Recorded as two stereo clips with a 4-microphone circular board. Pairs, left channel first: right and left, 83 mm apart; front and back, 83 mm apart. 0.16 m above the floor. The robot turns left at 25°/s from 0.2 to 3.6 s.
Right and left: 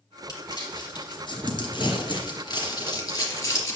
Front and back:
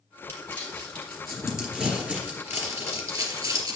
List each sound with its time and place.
0.3 s crumpling: 65° right, 3 m; by 3.8 s 145° right, 3 m